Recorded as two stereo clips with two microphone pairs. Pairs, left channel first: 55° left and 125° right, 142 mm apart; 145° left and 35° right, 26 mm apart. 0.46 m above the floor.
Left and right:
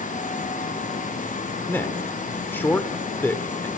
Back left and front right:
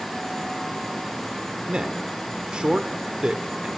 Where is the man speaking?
15° right, 1.2 m.